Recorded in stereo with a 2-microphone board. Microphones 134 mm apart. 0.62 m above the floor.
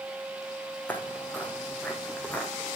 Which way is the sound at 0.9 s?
15° left (ahead or behind).